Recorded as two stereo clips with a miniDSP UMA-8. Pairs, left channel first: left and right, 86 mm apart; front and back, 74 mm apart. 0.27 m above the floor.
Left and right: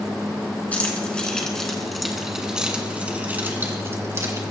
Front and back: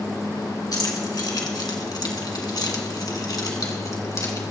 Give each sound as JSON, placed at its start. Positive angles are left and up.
{"t": 0.7, "sound": "keys jangling", "azimuth_deg": 20, "distance_m": 2.5}